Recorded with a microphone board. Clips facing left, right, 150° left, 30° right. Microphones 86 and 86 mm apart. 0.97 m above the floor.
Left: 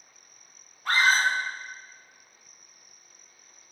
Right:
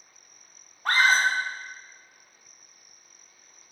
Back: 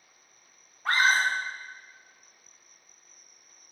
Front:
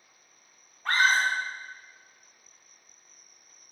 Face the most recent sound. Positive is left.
turn(degrees=-130)